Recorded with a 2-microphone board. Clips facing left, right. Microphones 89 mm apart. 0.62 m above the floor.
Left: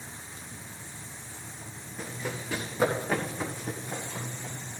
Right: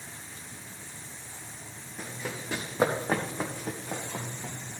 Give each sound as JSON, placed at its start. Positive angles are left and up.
{"t": 2.0, "sound": "running footsteps", "side_deg": -5, "distance_m": 2.5}